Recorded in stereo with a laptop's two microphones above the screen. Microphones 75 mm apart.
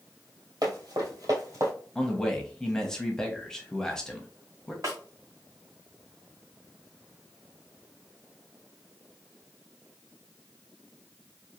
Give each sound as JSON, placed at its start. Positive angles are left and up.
{"t": 0.6, "sound": "running footsteps", "side_deg": -60, "distance_m": 1.8}
{"t": 1.9, "sound": "a man speaking", "side_deg": 10, "distance_m": 0.6}
{"t": 4.8, "sound": "a snare drum", "side_deg": -50, "distance_m": 1.8}